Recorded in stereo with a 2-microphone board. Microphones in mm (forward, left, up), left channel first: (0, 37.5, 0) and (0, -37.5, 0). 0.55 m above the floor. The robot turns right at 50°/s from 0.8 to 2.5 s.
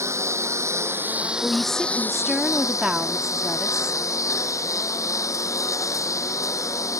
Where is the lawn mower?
40° right; by 7.0 s 45° left.